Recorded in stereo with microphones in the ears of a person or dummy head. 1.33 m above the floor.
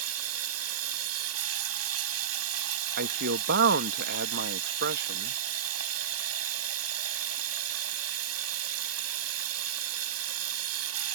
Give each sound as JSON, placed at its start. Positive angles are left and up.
{"t": 0.0, "sound": "running water", "side_deg": -75}
{"t": 3.0, "sound": "a man speaking", "side_deg": -55}